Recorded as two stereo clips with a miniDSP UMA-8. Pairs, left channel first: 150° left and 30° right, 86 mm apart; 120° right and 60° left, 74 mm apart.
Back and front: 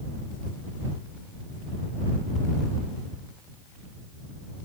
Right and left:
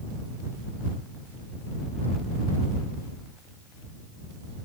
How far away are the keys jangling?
No keys jangling in this recording.